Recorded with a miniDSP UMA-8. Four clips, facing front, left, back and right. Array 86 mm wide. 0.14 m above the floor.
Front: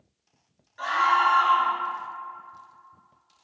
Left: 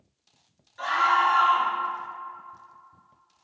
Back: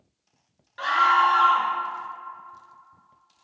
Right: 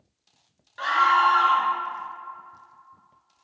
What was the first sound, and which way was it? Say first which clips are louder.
A scream: right 3 dB, back 2 dB; 130° right.